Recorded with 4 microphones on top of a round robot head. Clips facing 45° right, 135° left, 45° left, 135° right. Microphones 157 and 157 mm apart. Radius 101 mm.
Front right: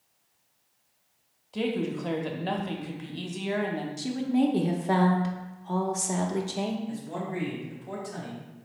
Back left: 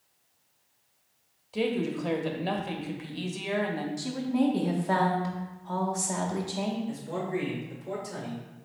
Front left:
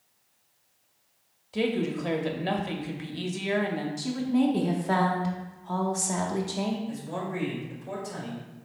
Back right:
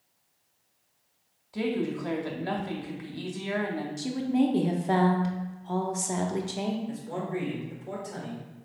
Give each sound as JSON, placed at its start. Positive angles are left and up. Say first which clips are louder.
{"t": 1.5, "sound": "a woman speaking", "louder": "back left 1 dB, front left 2 dB", "azimuth_deg": 55, "distance_m": 0.7}
{"t": 4.0, "sound": "a woman speaking", "louder": "front right 3 dB, even", "azimuth_deg": -90, "distance_m": 0.7}
{"t": 6.9, "sound": "a man speaking", "louder": "back left 2 dB, even", "azimuth_deg": 165, "distance_m": 1.9}